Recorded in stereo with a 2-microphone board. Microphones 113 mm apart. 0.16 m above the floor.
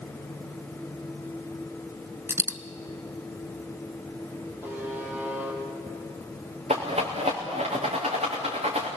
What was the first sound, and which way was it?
A dropped coin, 25° right (ahead or behind).